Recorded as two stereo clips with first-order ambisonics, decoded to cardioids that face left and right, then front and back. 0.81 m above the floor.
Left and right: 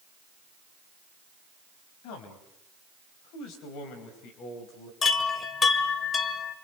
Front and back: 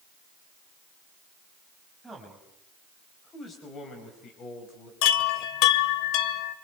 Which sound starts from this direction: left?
A man speaking, at 2.0 s.